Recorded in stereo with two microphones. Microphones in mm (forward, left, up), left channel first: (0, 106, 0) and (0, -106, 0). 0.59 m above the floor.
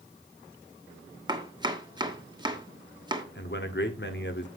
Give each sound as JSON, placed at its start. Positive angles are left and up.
{"t": 1.3, "sound": "chopping", "side_deg": -20, "distance_m": 1.2}
{"t": 3.4, "sound": "a man speaking", "side_deg": 60, "distance_m": 1.3}